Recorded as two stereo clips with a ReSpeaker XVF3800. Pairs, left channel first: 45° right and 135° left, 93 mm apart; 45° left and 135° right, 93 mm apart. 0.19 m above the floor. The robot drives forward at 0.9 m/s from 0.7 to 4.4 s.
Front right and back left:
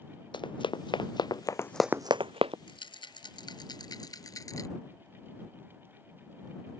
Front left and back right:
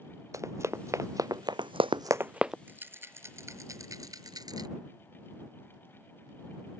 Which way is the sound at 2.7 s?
65° right.